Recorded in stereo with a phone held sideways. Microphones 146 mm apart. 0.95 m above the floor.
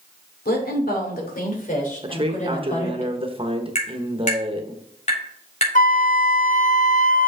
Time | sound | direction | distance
0.5 | a woman speaking | 80° left | 2.5 m
2.0 | a man speaking | 35° right (ahead or behind) | 1.1 m
3.8 | tapping | 50° left (ahead or behind) | 3.5 m
5.8 | a flute | 55° left (ahead or behind) | 0.6 m